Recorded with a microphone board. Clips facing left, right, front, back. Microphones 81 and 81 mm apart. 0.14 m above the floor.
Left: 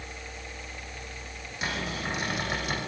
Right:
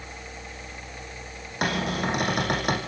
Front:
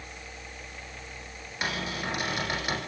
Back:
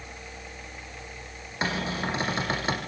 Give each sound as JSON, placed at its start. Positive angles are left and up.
{"t": 1.6, "sound": "a cupboard door", "azimuth_deg": -120, "distance_m": 5.5}